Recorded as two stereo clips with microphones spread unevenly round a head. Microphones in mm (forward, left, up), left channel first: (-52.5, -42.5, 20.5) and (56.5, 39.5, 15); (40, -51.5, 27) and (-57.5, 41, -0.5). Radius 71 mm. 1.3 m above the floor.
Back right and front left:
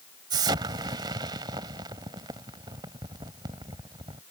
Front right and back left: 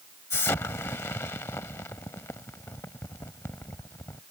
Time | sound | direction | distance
0.3 | an explosion | 10° right | ?